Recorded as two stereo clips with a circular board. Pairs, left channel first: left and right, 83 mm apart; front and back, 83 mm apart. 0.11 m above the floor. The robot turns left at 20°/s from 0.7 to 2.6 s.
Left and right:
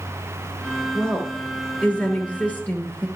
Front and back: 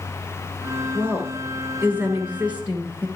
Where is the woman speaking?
160° left, 1.2 m; by 3.1 s 130° left, 1.2 m.